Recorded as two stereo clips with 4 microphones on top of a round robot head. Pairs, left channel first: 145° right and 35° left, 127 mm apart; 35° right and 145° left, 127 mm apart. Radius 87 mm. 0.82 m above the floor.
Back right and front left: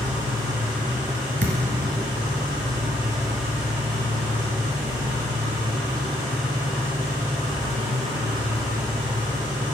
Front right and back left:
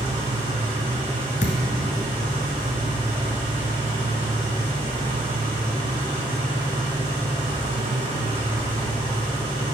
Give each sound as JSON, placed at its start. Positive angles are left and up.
{"t": 0.0, "sound": "an engine running", "azimuth_deg": 100, "distance_m": 4.5}
{"t": 1.4, "sound": "a thud", "azimuth_deg": 5, "distance_m": 1.3}